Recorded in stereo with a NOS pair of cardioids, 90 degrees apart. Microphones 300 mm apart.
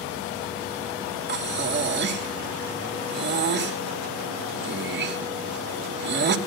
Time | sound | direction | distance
1.3 | breathing | 35° right | 2.5 m